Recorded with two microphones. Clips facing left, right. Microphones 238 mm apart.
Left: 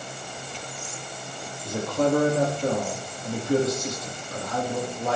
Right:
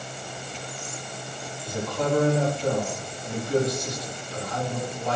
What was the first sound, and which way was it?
A man speaking, 50° left (ahead or behind).